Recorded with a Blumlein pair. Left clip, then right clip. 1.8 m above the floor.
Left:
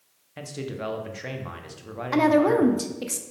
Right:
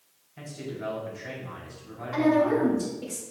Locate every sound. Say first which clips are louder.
0.4 s a man speaking: left 4 dB; 40° left, 0.8 m
2.1 s a woman speaking: left 3 dB; 50° left, 0.6 m